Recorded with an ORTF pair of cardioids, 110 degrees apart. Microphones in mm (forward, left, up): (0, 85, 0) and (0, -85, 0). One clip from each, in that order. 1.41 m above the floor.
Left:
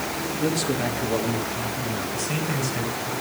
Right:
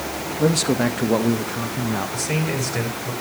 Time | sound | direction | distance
0.4 | a man speaking | 50° right | 2.5 m
2.1 | a man speaking | 65° right | 5 m